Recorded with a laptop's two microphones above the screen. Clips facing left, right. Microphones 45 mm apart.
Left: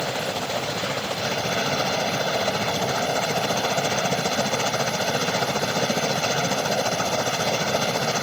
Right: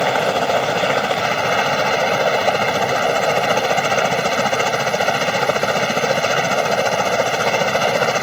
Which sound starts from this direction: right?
A helicopter, at 0.0 s.